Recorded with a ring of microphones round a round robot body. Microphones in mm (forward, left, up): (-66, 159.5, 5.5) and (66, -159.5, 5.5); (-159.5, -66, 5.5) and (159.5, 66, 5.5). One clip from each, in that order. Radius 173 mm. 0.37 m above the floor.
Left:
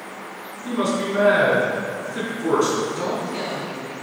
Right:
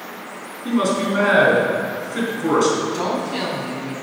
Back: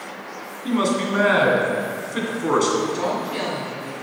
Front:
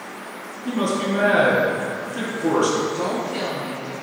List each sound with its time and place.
0.7 s a man speaking: 145° right, 3 m
2.8 s a woman speaking: 95° right, 3.5 m